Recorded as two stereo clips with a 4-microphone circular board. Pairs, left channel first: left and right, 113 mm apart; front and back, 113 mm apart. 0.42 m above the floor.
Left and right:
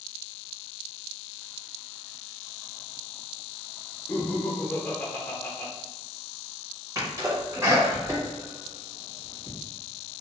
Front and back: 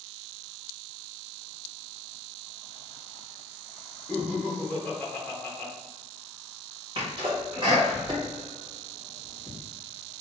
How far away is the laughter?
About 0.7 m.